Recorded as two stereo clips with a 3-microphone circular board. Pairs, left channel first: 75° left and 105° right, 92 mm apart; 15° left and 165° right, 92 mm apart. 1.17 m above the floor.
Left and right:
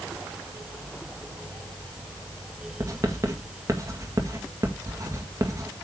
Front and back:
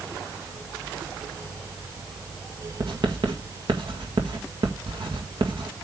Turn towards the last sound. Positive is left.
turn(degrees=-155)